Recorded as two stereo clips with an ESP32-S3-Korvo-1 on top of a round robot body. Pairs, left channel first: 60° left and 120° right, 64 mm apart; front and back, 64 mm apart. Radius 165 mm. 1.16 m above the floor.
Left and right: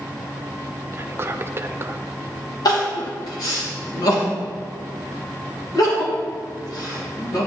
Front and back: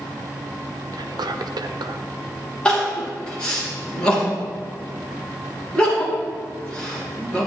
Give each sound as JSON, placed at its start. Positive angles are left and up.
{"t": 0.9, "sound": "whispering", "azimuth_deg": -175, "distance_m": 0.8}
{"t": 2.6, "sound": "crying", "azimuth_deg": 75, "distance_m": 2.5}